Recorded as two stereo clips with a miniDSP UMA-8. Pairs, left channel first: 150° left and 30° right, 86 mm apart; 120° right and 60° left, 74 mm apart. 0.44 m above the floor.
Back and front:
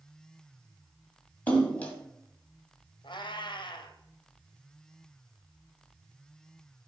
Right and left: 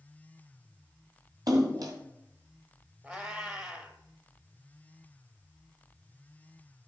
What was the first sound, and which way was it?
A splash, 80° left.